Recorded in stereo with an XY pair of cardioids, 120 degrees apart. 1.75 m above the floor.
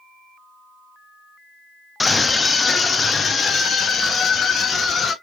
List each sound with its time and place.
2.0 s a scream: 20° left, 1.0 m; by 5.1 s 40° left, 2.5 m